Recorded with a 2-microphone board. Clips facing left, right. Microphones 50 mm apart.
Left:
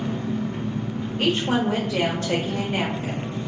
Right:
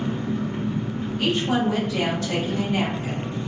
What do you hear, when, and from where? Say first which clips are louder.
0.0 s an engine running: even; 25° right (ahead or behind), 1.8 m
1.2 s a woman speaking: left 1 dB; 45° left (ahead or behind), 1.0 m